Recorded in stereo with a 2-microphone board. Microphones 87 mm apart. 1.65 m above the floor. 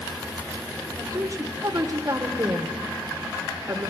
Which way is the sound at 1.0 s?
40° right (ahead or behind).